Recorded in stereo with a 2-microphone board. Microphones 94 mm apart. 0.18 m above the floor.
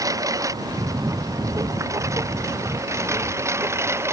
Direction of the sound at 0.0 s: 35° right (ahead or behind).